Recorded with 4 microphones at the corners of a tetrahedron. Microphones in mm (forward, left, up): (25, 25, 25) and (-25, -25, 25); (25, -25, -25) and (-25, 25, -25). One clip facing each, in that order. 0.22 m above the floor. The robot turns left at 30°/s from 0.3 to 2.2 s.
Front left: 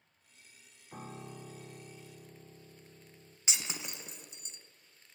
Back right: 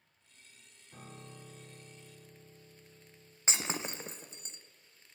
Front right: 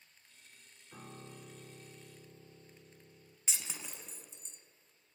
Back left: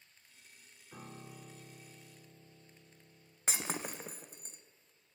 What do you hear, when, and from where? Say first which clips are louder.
0.9 s a piano: front left 5 dB, even; 50° left, 1.5 m; by 3.4 s 10° left, 1.5 m
3.5 s breaking glass: back right 5 dB, back left 8 dB; 170° left, 1.0 m